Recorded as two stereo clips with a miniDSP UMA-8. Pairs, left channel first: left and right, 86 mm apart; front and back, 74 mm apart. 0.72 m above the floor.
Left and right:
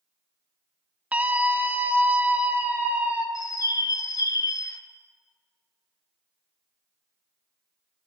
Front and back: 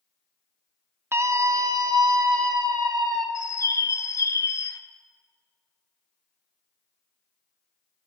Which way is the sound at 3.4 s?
45° left.